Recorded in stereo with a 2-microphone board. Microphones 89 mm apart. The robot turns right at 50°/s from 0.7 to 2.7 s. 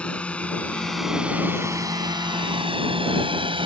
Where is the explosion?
No explosion in this recording.